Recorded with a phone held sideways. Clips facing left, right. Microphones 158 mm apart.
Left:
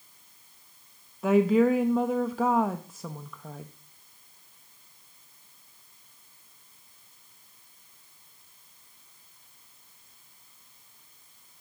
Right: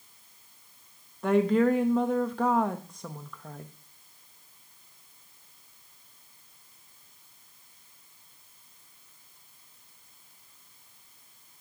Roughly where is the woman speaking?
Centre.